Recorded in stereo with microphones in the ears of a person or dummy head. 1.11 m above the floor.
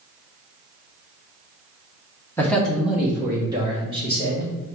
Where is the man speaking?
5° left (ahead or behind), 1.0 m; by 4.5 s 35° right (ahead or behind), 1.5 m.